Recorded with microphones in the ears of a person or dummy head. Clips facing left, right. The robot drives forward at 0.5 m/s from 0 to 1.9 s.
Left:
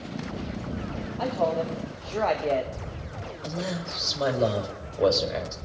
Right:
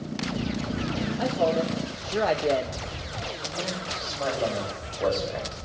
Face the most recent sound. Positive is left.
turn(degrees=50)  # may be behind; listen again after turning